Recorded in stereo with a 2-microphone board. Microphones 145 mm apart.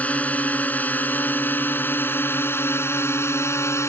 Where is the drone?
10° left (ahead or behind); by 3.9 s 20° left (ahead or behind).